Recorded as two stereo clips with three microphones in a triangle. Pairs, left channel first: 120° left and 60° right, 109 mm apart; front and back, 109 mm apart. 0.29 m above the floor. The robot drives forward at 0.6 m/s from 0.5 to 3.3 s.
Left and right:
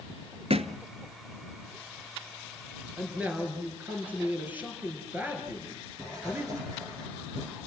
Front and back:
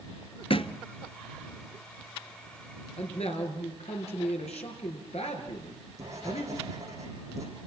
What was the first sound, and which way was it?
A thud, 35° right.